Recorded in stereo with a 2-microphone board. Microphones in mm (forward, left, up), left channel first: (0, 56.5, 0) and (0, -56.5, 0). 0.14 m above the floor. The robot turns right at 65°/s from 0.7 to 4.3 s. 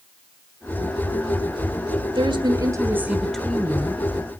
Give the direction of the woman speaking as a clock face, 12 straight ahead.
3 o'clock.